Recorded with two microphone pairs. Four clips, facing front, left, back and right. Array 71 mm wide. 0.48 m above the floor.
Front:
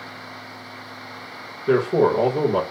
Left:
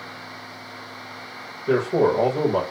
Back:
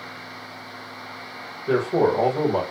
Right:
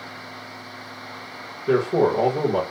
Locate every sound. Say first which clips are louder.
1.7 s a man speaking: even, front 2 dB; 25° right, 1.5 m